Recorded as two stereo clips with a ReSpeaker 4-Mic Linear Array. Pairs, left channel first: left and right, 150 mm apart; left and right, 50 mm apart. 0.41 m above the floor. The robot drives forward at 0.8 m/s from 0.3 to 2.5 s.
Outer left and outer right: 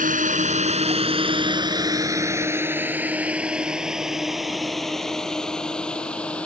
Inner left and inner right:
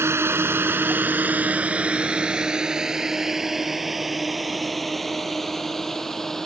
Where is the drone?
60° right (ahead or behind); by 6.5 s 10° left (ahead or behind).